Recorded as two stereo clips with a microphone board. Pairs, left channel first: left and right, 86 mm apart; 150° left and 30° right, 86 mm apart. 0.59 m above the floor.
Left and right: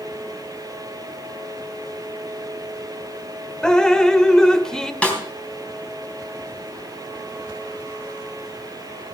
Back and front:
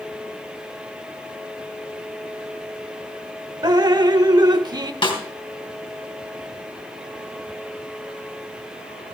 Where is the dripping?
10° left, 0.6 m.